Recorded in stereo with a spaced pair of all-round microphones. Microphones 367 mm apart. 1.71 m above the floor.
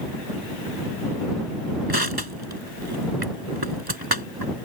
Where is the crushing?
85° right.